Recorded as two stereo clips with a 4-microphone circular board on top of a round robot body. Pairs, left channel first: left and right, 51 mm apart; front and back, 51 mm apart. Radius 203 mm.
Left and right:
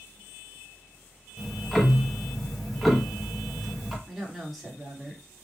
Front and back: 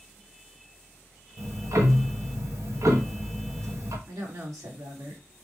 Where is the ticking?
175° left, 1.2 m.